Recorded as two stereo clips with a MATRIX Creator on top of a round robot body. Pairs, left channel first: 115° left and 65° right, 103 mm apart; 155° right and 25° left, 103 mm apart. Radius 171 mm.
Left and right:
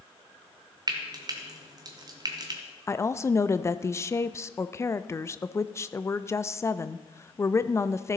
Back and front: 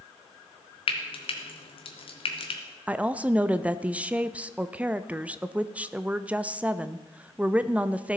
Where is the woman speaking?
85° left, 0.6 m.